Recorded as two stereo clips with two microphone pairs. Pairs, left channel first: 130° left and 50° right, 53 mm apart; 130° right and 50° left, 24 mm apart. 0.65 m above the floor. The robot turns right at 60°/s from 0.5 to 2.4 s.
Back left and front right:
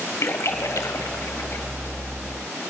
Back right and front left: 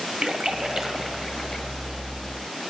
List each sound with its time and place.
0.2 s a splash: 100° left, 1.1 m; by 1.7 s 170° left, 1.1 m